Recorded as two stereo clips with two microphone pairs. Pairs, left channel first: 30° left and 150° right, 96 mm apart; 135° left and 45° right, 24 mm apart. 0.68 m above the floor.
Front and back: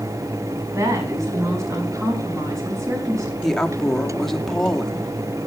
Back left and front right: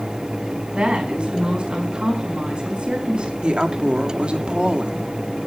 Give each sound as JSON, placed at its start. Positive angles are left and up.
{"t": 0.7, "sound": "a woman speaking", "azimuth_deg": -95, "distance_m": 4.5}
{"t": 3.4, "sound": "a woman speaking", "azimuth_deg": -60, "distance_m": 1.2}